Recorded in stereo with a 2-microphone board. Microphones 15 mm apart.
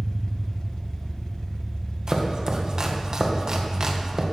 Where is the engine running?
50° left (ahead or behind), 1.0 m.